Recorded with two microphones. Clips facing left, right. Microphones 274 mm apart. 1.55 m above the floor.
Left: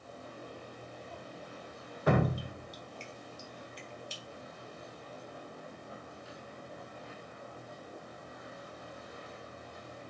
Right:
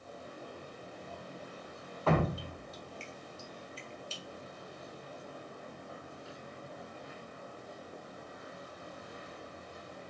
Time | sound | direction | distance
2.1 | dripping | 15° left (ahead or behind) | 0.6 m